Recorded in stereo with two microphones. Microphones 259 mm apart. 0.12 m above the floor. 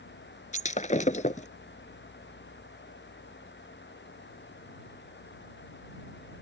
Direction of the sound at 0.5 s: 30° left (ahead or behind).